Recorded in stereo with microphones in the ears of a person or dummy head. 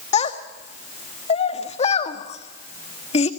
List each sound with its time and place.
0.1 s a child speaking: 30° left (ahead or behind), 1.4 m